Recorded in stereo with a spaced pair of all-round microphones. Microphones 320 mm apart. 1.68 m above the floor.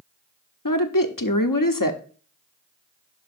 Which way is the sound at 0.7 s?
90° left.